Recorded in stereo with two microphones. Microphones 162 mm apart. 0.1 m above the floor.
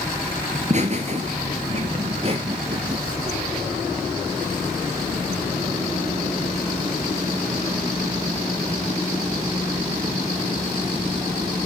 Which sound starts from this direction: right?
Laughter, at 0.5 s.